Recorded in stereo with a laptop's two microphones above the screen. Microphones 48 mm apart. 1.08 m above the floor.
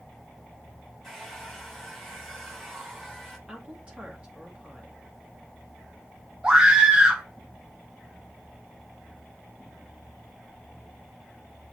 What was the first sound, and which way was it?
A hair dryer, centre (ahead or behind).